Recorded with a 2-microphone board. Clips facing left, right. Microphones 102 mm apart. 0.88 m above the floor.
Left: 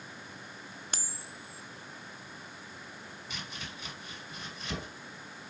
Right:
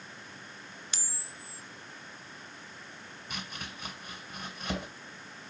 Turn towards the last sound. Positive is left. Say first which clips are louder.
# right 3 dB
turn(degrees=-50)  # may be behind; listen again after turning